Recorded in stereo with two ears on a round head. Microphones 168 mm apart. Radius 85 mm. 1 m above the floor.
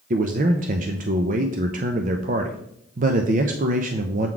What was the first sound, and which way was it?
A man speaking, 45° right (ahead or behind).